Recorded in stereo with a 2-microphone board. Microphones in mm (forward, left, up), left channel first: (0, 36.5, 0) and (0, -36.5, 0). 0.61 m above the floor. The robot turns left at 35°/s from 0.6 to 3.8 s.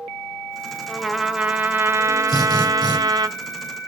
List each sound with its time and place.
0.9 s a trumpet: 5° left, 0.9 m; by 3.3 s 80° right, 0.9 m
2.3 s a drill: 55° left (ahead or behind), 7.5 m; by 3.0 s 80° left, 7.5 m